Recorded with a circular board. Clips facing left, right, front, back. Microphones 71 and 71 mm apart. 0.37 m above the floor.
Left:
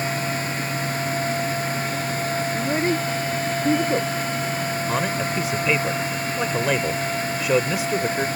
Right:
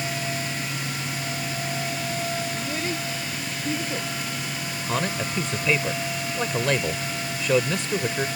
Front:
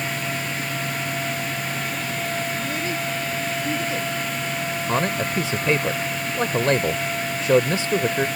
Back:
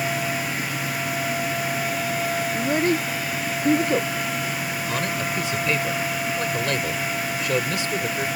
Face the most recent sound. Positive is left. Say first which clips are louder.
# even, front 4 dB
turn(degrees=10)